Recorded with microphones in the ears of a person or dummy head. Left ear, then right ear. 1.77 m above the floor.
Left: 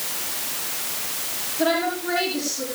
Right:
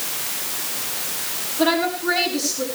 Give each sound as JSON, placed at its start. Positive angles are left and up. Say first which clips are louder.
{"t": 1.6, "sound": "a woman speaking", "louder": "right 2 dB", "side_deg": -15, "distance_m": 5.5}